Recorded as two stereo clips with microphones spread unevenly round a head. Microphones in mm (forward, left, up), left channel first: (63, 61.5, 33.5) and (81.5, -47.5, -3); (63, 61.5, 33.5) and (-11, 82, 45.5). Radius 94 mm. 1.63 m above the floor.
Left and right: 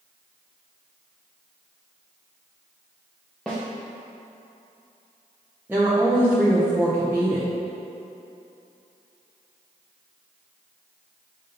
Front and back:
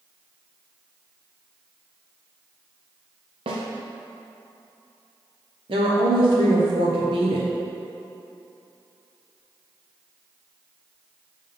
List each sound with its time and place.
3.5 s a snare drum: 175° right, 0.8 m
5.7 s a woman speaking: 160° right, 1.0 m